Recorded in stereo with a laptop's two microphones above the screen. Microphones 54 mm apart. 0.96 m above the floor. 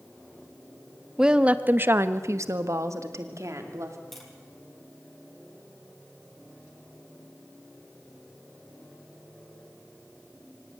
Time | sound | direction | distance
1.2 | a woman speaking | 10° right (ahead or behind) | 1.3 m
4.1 | tapping | 5° left (ahead or behind) | 6 m